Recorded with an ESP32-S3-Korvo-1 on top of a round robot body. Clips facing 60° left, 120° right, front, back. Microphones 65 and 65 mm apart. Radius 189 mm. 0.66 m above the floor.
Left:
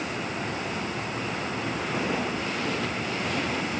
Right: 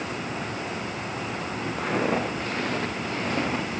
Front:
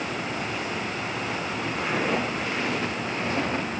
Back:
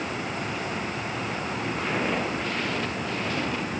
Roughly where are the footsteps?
Right.